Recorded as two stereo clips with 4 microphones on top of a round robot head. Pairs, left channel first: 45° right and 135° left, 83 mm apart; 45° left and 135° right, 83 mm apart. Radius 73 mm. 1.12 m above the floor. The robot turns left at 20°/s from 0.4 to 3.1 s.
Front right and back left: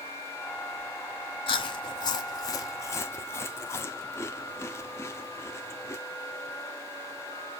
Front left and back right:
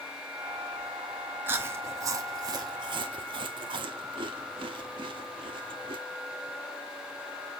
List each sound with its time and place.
1.5 s chewing: 70° right, 0.8 m; by 6.0 s 100° right, 0.8 m